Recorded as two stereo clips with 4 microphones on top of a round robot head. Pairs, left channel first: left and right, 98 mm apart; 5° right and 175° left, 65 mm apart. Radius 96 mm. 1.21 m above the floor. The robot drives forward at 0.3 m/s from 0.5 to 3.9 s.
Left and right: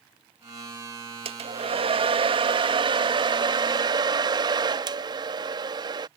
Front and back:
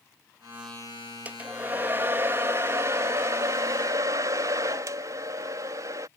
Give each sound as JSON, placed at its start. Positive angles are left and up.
{"t": 1.2, "sound": "a hair dryer", "azimuth_deg": -115}